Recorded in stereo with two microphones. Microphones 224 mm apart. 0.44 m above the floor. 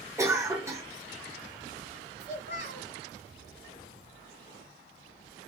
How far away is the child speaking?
About 1.3 m.